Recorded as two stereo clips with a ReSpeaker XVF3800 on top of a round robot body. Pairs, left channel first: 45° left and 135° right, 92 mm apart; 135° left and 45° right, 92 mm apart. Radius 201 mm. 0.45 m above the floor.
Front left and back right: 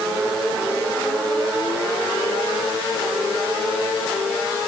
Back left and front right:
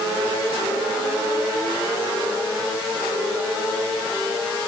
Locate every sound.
Only background noise.